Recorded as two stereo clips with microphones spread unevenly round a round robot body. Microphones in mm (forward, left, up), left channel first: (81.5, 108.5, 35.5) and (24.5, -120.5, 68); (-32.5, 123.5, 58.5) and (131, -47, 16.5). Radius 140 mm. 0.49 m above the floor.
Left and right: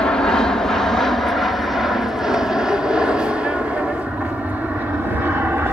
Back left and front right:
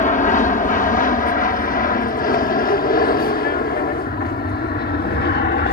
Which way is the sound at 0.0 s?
130° left.